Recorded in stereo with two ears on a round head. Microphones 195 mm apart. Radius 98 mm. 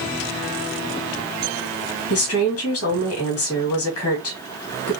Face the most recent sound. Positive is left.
turn(degrees=70)  # may be behind; listen again after turning